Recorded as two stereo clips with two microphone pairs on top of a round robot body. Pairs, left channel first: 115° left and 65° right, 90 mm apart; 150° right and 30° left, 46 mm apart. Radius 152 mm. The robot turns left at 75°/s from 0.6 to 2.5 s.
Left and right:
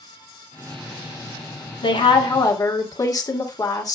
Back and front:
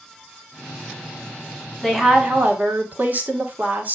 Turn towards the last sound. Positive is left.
turn(degrees=75)